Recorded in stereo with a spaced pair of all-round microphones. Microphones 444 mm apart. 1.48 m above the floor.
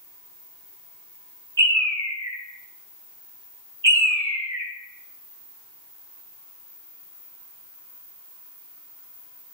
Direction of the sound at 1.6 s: 75° right (ahead or behind).